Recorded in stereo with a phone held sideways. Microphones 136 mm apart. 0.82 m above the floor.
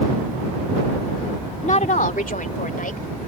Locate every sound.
1.6 s a woman speaking: 55° left (ahead or behind); by 3.1 s 80° left